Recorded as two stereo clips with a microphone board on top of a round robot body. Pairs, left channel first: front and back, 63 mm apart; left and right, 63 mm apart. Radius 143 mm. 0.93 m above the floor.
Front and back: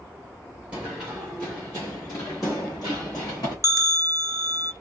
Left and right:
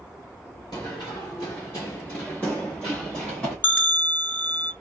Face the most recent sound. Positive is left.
turn(degrees=150)